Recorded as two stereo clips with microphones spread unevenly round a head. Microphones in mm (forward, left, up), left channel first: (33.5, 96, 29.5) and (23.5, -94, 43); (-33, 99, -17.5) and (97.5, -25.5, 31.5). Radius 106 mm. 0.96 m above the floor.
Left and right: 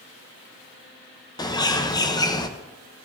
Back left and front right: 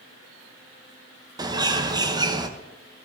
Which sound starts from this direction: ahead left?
A bird, at 1.4 s.